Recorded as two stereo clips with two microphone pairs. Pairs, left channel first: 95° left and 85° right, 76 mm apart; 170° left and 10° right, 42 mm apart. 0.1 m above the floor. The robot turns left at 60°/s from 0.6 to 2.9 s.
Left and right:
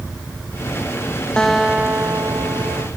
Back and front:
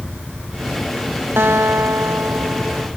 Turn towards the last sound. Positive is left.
turn(degrees=-75)